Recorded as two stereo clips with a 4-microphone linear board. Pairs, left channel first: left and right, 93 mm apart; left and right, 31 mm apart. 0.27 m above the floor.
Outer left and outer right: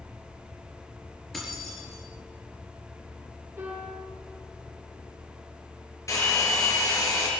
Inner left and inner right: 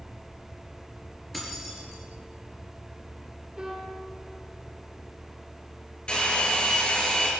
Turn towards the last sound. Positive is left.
turn(degrees=30)  # may be behind; listen again after turning